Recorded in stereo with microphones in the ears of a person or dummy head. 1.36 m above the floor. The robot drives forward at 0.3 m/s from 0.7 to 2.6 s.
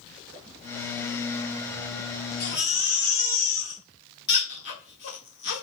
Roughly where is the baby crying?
Left.